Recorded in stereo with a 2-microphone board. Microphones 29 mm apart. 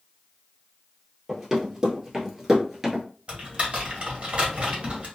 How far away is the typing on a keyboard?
About 1.7 m.